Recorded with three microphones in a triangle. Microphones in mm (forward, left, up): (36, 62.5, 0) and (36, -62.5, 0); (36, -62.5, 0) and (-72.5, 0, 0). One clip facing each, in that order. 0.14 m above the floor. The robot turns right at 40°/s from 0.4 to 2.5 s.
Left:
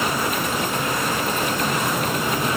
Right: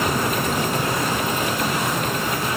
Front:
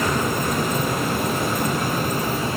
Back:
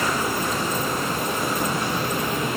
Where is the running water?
60° right, 2.5 m; by 2.6 s 25° left, 2.5 m.